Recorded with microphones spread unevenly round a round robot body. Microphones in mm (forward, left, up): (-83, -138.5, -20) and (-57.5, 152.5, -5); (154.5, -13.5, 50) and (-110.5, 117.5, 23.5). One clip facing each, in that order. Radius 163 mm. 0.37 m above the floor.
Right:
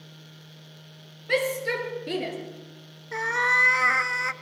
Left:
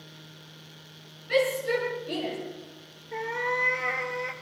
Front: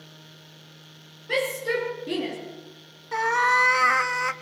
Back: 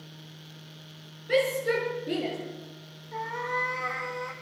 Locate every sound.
1.3 s a shout: 110° right, 7.5 m; by 2.4 s 100° right, 7.5 m
3.1 s a cat meowing: 55° right, 0.7 m